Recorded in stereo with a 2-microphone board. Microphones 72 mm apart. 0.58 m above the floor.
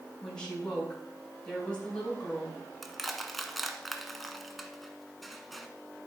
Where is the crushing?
Centre (ahead or behind), 0.9 m.